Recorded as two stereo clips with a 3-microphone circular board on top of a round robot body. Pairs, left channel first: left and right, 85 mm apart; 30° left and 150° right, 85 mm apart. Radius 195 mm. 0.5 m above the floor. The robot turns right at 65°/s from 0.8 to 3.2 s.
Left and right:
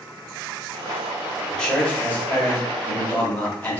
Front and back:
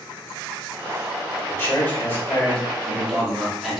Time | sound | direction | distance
1.5 | a man speaking | 15° left | 1.2 m